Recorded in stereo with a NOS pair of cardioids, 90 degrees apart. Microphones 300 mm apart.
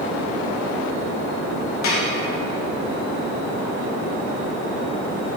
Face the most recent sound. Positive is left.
turn(degrees=65)